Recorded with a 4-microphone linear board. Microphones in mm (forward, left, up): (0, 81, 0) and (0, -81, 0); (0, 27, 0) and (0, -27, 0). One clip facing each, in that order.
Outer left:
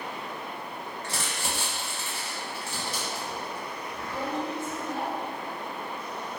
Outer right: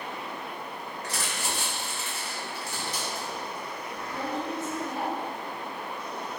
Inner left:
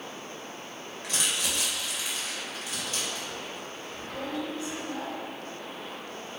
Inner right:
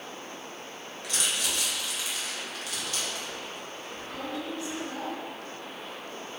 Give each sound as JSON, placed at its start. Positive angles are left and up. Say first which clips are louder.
{"t": 1.0, "sound": "crumpling", "louder": "outer right 1 dB, even", "side_deg": 30, "distance_m": 0.8}